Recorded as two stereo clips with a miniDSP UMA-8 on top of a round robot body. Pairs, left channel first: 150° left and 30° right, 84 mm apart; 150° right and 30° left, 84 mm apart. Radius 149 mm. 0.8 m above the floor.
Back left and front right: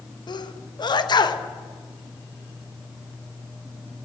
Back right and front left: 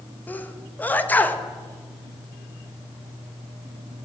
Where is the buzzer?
No buzzer in this recording.